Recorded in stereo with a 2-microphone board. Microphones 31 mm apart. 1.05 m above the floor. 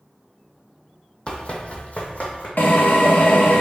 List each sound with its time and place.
1.3 s running footsteps: 35° left (ahead or behind), 1.5 m; by 2.5 s 55° left (ahead or behind), 2.5 m
2.6 s a drill: 70° left (ahead or behind), 1.3 m